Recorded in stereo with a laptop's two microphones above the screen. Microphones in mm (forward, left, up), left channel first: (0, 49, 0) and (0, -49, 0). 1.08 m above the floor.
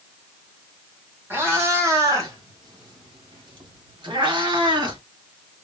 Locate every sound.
1.3 s a cat meowing: 25° right (ahead or behind), 1.5 m; by 5.0 s 55° right (ahead or behind), 1.9 m